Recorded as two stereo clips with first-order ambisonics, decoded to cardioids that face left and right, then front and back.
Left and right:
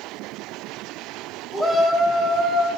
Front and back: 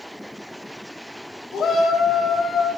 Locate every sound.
1.5 s a shout: 20° right, 1.4 m